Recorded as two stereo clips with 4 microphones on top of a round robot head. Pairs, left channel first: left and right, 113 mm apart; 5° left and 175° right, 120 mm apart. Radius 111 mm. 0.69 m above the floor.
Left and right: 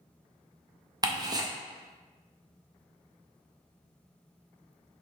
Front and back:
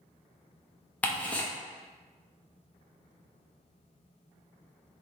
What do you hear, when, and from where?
1.0 s ticking: 65° right, 0.8 m